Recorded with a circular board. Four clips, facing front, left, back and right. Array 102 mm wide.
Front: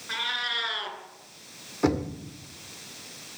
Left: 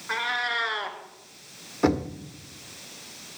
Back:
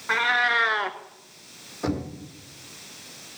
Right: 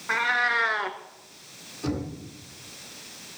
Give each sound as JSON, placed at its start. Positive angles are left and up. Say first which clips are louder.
{"t": 0.1, "sound": "a cat meowing", "louder": "right 4 dB, back 11 dB", "azimuth_deg": -155, "distance_m": 0.9}
{"t": 1.8, "sound": "knocking", "louder": "left 7 dB, front 3 dB", "azimuth_deg": 60, "distance_m": 1.9}